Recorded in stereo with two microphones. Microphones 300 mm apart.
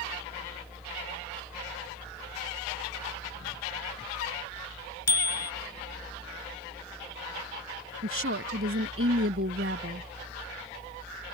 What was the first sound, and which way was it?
A bicycle bell, 60° right (ahead or behind).